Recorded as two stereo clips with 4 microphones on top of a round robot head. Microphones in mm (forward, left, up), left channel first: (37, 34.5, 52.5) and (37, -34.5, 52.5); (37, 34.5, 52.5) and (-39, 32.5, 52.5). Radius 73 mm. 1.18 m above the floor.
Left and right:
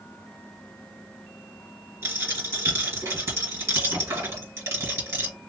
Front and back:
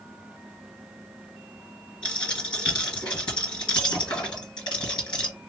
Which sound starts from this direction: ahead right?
A dropped coin, at 2.0 s.